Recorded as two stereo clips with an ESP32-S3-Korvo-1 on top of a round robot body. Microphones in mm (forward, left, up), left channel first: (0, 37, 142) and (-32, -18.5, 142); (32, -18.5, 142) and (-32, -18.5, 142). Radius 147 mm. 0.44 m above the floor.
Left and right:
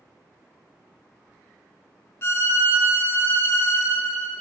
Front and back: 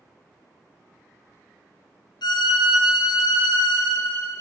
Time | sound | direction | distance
2.2 | a violin | 5° left | 0.7 m